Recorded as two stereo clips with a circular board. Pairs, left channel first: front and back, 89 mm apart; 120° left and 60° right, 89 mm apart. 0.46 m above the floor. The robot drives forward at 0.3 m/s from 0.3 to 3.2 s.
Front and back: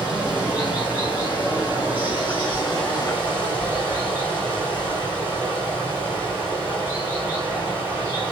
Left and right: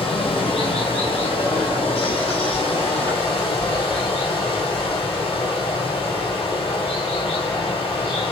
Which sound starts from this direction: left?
Running water, at 0.0 s.